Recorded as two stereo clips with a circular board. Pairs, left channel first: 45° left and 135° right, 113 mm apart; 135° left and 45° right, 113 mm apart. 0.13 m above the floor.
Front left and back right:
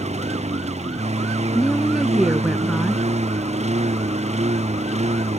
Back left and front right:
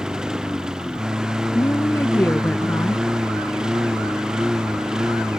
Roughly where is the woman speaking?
Behind left.